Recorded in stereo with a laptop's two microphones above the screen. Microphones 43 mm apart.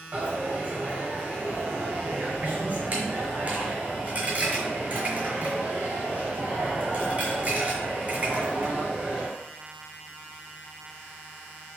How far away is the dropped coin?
About 1.2 m.